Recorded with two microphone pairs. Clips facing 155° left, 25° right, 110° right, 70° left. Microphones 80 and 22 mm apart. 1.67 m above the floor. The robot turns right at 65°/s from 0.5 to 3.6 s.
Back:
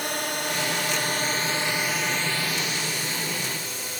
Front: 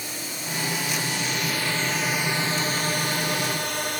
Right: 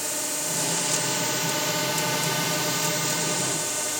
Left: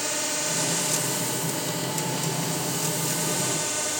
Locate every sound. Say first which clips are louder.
0.0 s a drone: back 7 dB, left 2 dB; 145° left; by 4.0 s 15° right